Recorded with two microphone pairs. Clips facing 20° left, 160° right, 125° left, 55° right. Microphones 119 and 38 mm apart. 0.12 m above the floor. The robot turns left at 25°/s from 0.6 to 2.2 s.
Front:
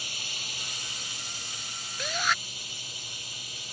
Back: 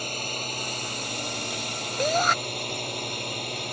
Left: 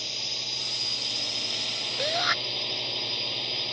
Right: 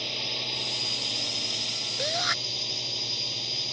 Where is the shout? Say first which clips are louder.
Back 8 dB, left 2 dB; 160° right; by 2.4 s 165° right.